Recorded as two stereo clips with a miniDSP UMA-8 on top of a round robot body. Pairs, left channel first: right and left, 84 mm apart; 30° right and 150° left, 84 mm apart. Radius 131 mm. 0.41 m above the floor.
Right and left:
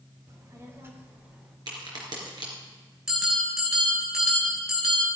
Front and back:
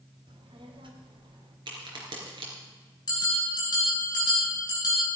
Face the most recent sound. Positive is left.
turn(degrees=10)